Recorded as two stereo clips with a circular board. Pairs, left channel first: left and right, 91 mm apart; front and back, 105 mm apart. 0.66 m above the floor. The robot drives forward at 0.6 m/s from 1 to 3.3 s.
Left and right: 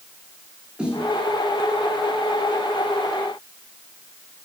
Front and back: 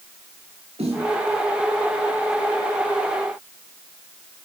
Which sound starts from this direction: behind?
A snare drum, at 0.8 s.